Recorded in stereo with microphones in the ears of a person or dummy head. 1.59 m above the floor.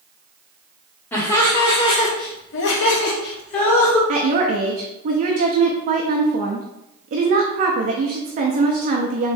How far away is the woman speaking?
About 0.5 m.